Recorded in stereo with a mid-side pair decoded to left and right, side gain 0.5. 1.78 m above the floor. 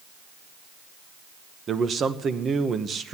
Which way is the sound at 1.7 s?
40° right.